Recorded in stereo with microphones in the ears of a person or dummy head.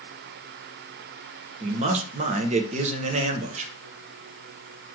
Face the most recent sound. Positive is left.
turn(degrees=-30)  # may be behind; listen again after turning